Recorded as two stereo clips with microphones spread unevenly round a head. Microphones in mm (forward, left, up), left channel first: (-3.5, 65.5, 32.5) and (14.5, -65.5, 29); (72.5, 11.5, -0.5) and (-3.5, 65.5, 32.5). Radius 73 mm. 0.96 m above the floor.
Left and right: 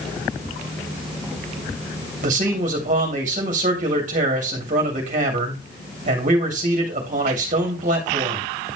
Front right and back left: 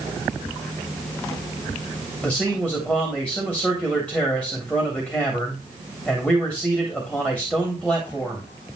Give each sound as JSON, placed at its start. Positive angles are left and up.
{"t": 2.2, "sound": "a man speaking", "azimuth_deg": -115, "distance_m": 3.0}